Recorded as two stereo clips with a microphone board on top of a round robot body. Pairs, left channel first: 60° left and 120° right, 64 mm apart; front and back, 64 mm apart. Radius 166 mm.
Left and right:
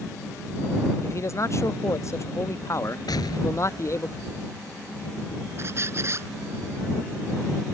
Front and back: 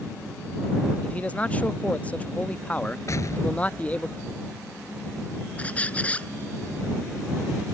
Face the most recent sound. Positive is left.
turn(degrees=-70)